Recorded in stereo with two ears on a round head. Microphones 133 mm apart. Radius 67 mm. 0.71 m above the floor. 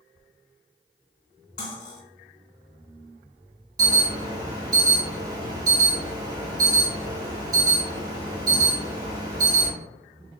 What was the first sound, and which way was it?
Cutlery clinking, 60° left (ahead or behind).